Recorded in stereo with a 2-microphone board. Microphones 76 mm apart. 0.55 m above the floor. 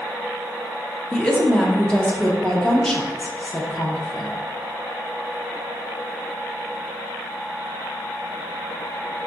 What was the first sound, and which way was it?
A woman speaking, 10° left (ahead or behind).